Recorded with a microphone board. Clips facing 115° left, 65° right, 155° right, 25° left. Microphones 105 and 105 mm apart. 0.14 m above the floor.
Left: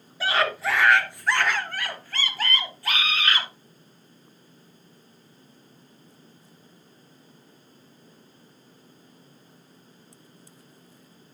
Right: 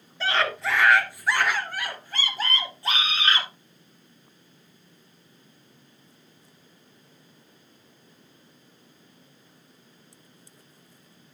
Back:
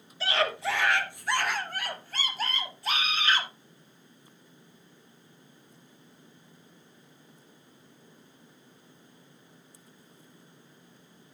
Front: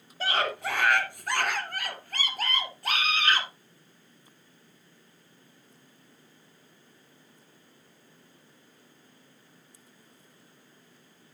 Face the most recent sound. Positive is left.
turn(degrees=-5)